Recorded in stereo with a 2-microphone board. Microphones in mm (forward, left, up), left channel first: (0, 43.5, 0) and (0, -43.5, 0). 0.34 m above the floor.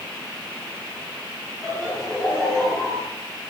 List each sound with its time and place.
1.6 s laughter: 10° left (ahead or behind), 9.5 m